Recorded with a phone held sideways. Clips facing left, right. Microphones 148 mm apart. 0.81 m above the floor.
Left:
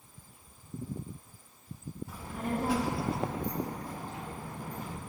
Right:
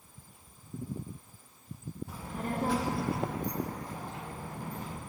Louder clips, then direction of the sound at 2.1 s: Left 2 dB; 5° right (ahead or behind).